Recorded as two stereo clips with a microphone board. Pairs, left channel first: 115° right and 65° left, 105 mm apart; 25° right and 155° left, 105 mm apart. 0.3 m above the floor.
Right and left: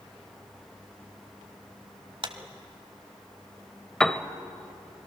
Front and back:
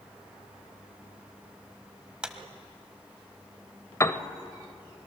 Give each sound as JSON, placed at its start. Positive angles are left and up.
{"t": 2.2, "sound": "a clap", "azimuth_deg": 80, "distance_m": 1.1}
{"t": 4.0, "sound": "a piano", "azimuth_deg": -35, "distance_m": 0.7}